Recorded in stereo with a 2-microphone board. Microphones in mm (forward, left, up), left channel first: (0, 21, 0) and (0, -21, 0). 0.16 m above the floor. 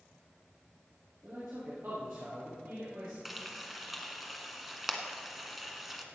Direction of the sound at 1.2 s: 55° right (ahead or behind).